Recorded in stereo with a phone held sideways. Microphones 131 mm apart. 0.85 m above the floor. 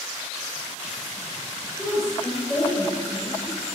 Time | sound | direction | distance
1.8 | a woman speaking | 5° left (ahead or behind) | 3 m